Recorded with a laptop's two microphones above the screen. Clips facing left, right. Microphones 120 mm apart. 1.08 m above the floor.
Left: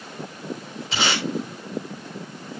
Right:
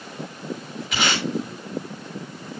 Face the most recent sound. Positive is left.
turn(degrees=30)  # may be behind; listen again after turning